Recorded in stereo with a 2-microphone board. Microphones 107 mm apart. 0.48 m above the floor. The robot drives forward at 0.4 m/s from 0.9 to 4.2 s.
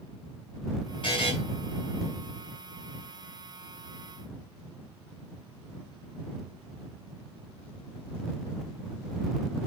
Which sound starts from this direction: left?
A buzzer, at 1.0 s.